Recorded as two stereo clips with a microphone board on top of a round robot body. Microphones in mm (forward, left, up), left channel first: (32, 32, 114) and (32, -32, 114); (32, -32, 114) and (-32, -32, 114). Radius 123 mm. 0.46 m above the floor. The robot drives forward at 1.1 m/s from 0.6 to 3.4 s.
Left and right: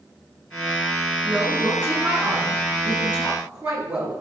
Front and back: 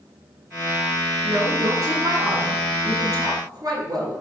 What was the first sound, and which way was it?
A woman speaking, 145° right.